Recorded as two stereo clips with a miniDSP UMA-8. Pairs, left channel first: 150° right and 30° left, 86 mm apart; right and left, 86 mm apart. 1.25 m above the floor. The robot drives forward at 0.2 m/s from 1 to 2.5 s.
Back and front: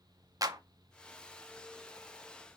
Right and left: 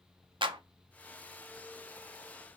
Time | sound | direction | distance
0.4 | a clap | 75° left | 0.5 m